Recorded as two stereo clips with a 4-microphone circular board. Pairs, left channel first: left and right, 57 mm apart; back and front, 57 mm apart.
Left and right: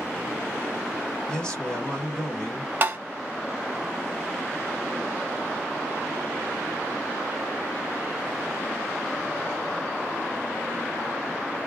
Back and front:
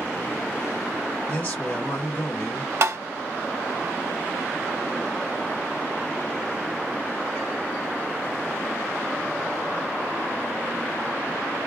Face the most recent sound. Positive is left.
turn(degrees=-40)